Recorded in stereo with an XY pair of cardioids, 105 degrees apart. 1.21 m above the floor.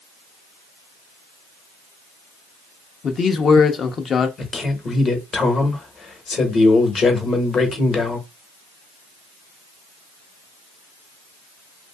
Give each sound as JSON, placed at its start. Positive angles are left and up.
{"t": 3.0, "sound": "a man speaking", "azimuth_deg": 45, "distance_m": 0.7}
{"t": 4.4, "sound": "a man speaking", "azimuth_deg": 45, "distance_m": 1.1}